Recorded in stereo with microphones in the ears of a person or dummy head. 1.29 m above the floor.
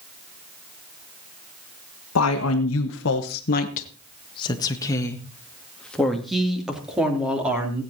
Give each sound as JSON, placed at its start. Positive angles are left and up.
{"t": 2.1, "sound": "a woman speaking", "side_deg": 80, "distance_m": 1.5}